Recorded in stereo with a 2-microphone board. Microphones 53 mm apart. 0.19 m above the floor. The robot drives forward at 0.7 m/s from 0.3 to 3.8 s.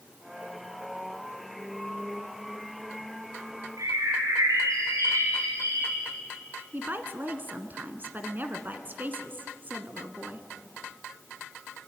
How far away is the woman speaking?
About 1.9 m.